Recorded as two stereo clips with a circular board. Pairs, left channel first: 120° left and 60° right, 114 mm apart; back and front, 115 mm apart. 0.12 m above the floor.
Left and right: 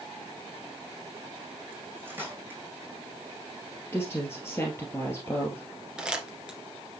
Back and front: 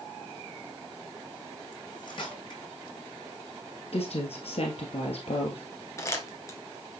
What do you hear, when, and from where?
1.7 s cutlery clinking: 130° right, 3.5 m
3.9 s a woman speaking: 175° right, 2 m
6.0 s crumpling: 135° right, 2 m